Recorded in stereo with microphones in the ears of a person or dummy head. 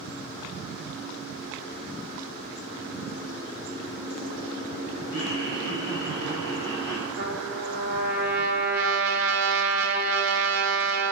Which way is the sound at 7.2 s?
60° right (ahead or behind).